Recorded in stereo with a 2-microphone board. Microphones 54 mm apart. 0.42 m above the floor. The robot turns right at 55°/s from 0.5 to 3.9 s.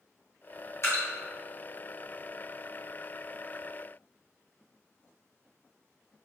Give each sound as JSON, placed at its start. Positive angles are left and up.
{"t": 0.8, "sound": "dripping", "side_deg": 55, "distance_m": 1.8}